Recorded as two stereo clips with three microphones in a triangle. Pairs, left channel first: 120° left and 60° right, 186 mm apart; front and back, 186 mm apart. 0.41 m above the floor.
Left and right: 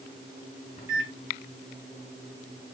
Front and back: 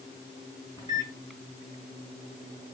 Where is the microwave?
65° left, 3.5 m.